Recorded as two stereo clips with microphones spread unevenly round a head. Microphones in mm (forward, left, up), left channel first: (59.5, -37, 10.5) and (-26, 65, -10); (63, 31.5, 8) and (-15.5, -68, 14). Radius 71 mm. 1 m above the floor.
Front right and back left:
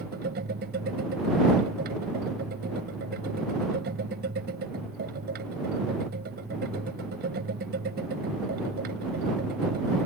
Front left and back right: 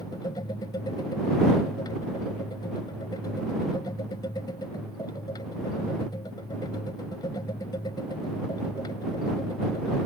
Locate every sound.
0.0 s a machine running: 120° left